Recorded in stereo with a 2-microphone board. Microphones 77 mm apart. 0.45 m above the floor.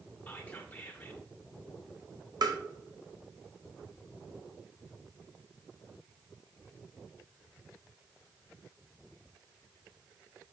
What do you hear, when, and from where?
0.3 s whispering: 20° left (ahead or behind), 1.5 m
2.4 s tapping: 60° right (ahead or behind), 1.4 m